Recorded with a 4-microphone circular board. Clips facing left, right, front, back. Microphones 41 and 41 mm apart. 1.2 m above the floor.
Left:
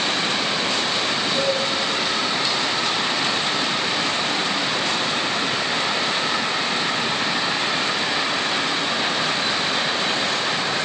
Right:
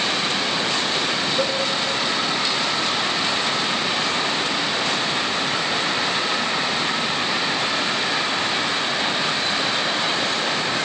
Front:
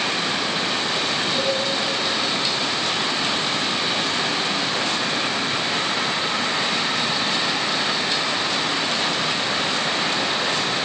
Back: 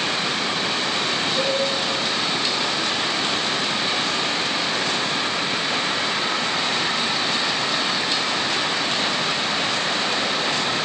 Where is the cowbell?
60° left, 5 m.